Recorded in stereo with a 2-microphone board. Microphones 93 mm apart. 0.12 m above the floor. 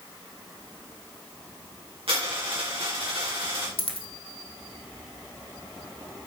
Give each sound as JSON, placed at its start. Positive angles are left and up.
{"t": 2.1, "sound": "a dropped coin", "side_deg": -80, "distance_m": 4.0}
{"t": 3.8, "sound": "a dropped coin", "side_deg": 80, "distance_m": 1.6}